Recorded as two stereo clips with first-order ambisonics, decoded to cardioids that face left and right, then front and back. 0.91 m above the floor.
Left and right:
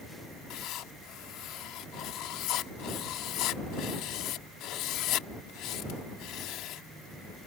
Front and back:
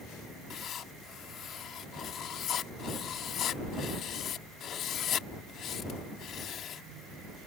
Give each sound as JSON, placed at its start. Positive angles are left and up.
{"t": 0.5, "sound": "writing", "azimuth_deg": 55}